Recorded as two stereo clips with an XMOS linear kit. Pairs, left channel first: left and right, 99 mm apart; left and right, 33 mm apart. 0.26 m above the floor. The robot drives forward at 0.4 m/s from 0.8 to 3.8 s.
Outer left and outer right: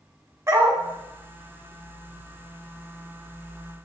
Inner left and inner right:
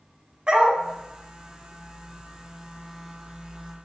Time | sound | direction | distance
0.5 | a dog barking | 30° right (ahead or behind) | 0.6 m